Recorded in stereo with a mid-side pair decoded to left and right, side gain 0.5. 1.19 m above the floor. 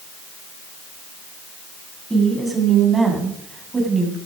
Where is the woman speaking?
15° right, 8.5 m; by 4.2 s 25° right, 7.5 m.